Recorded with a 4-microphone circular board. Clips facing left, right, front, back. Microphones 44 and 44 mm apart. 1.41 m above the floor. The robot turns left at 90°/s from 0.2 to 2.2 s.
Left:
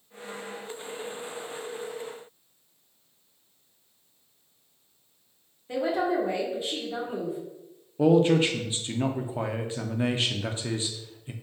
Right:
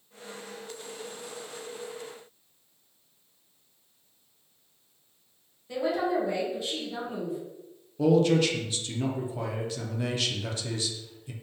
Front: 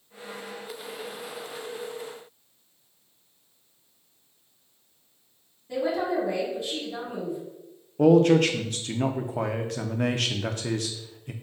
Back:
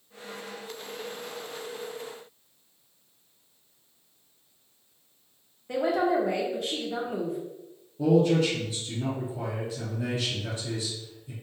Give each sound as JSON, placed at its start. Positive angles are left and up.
{"t": 5.7, "sound": "a woman speaking", "azimuth_deg": 155, "distance_m": 1.3}
{"t": 8.0, "sound": "a man speaking", "azimuth_deg": 30, "distance_m": 0.5}